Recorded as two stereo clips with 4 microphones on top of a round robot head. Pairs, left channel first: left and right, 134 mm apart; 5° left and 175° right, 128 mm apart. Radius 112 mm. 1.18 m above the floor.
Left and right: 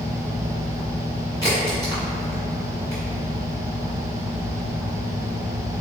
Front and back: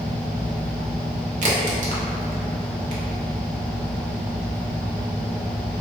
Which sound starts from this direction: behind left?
A crack, at 1.4 s.